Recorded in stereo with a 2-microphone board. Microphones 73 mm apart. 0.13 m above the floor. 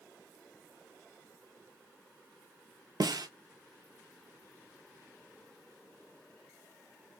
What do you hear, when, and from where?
3.0 s a snare drum: 70° right (ahead or behind), 0.6 m